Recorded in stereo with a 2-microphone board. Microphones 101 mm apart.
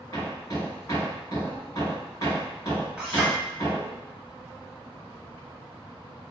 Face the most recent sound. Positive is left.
turn(degrees=-5)  # may be behind; listen again after turning